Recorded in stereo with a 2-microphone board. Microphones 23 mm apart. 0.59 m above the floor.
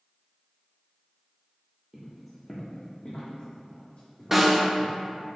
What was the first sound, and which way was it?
Footsteps, 15° right (ahead or behind).